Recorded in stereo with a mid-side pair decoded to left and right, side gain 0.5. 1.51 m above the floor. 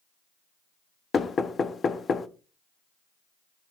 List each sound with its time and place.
1.1 s knocking: 40° left, 1.0 m